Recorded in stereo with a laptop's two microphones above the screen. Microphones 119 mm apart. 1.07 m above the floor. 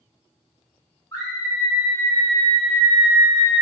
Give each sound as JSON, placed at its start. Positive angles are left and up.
{"t": 1.1, "sound": "a scream", "side_deg": 35, "distance_m": 1.6}